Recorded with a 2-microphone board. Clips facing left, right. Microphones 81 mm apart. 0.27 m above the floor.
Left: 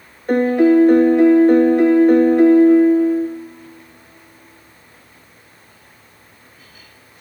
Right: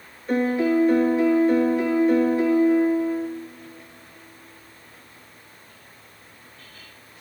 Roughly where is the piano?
Left.